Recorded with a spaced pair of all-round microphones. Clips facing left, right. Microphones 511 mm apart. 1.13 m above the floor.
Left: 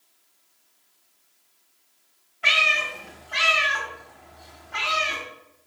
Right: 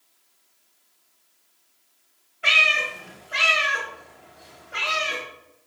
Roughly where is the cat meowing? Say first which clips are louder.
Right 1 dB; centre.